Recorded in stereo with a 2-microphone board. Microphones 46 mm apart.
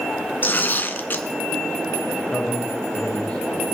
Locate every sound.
0.4 s tearing paper: 45° left (ahead or behind), 1.4 m
2.3 s a man speaking: 25° left (ahead or behind), 5.5 m